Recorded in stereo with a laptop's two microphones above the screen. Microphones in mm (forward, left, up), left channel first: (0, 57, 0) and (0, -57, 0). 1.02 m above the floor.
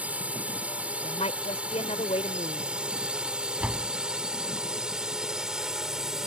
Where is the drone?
10° right (ahead or behind); by 6.3 s 5° right (ahead or behind).